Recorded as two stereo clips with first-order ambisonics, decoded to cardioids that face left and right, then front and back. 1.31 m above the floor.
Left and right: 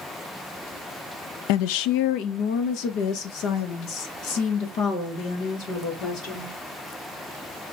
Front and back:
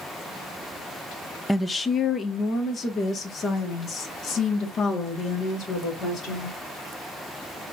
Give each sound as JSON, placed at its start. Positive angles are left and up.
{"t": 1.5, "sound": "a woman speaking", "azimuth_deg": 85, "distance_m": 0.5}